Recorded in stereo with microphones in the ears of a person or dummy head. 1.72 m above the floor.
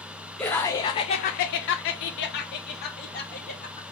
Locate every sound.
0.4 s laughter: 10° left (ahead or behind), 0.8 m; by 3.8 s 50° left (ahead or behind), 1.6 m